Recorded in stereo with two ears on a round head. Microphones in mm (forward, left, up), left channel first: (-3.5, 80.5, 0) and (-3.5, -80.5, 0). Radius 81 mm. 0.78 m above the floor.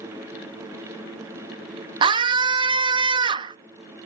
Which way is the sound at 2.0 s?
25° right (ahead or behind).